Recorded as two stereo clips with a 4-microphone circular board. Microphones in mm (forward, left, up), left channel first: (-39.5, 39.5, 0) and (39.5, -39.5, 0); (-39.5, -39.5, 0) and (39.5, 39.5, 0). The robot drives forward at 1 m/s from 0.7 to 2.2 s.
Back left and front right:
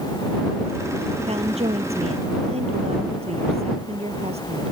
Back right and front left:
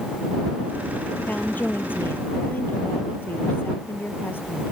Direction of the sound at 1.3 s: 60° right.